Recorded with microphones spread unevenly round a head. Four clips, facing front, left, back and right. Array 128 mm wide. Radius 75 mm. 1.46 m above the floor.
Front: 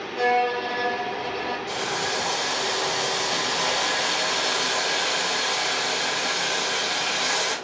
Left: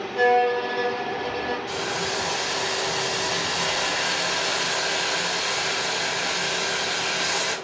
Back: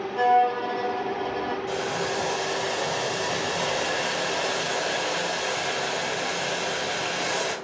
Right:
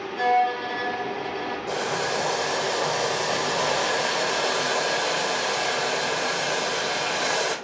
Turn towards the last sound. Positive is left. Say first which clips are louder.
# right 2 dB, even
turn(degrees=-135)